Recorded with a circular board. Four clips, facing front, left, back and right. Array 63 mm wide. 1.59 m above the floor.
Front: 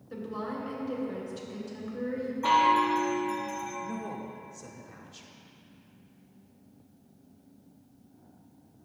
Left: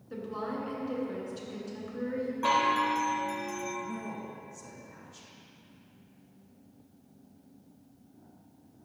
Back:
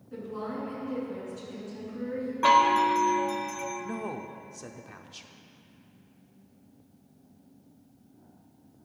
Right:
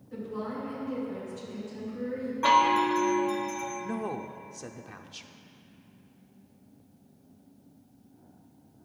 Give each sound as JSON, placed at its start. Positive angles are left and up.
{"t": 0.1, "sound": "a woman speaking", "azimuth_deg": 55, "distance_m": 3.0}
{"t": 2.4, "sound": "a chime", "azimuth_deg": -170, "distance_m": 1.0}
{"t": 3.8, "sound": "a woman speaking", "azimuth_deg": -120, "distance_m": 0.5}